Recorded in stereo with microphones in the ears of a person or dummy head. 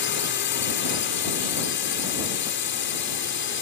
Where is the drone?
50° left (ahead or behind).